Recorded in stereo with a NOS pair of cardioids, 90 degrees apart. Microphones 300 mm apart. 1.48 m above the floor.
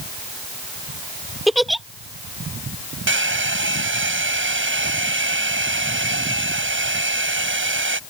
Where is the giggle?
Straight ahead.